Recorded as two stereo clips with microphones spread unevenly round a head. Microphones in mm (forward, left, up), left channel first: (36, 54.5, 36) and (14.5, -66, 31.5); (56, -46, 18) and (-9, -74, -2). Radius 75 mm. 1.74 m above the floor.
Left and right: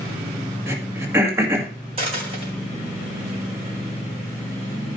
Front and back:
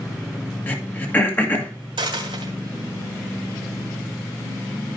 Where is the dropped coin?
150° right, 3 m.